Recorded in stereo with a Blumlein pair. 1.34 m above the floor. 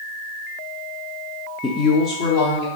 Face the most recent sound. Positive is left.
turn(degrees=50)